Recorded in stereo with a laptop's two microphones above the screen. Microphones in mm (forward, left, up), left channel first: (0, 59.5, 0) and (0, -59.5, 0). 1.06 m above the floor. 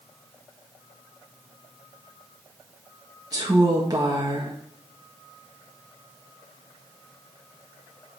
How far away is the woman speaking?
About 1.3 m.